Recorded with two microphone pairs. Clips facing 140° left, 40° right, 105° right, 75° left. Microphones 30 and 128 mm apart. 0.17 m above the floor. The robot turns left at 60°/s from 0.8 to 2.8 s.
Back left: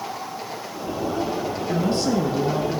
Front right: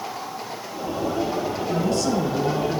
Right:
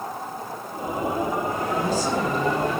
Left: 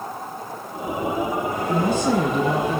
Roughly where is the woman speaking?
Left.